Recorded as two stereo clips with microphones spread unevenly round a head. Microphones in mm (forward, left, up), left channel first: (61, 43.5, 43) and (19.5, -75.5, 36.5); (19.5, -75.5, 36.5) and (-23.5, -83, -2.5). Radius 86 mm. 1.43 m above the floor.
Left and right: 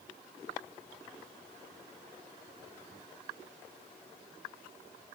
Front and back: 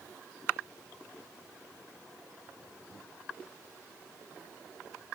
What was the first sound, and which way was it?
Only background noise.